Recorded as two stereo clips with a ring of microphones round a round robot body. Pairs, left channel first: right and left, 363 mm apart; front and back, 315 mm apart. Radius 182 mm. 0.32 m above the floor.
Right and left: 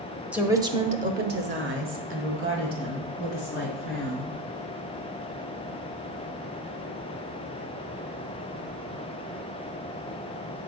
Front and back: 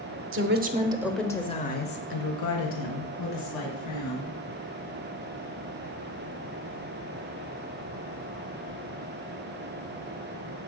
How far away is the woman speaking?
About 1.0 m.